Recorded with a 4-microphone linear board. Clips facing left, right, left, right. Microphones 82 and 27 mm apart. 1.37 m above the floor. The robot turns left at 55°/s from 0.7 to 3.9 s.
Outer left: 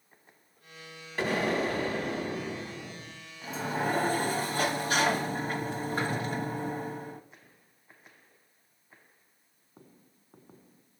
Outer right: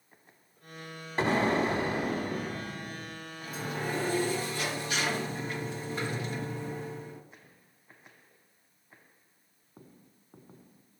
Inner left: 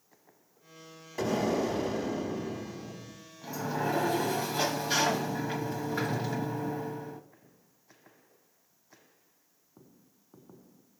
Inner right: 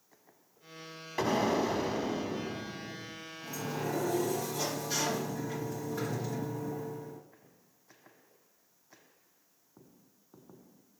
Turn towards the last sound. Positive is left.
turn(degrees=45)  # may be behind; listen again after turning